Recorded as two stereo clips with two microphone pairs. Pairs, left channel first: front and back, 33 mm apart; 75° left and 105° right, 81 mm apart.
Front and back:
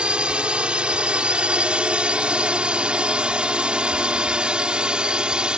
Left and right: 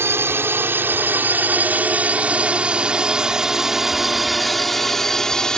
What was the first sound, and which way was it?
A drone, 140° right.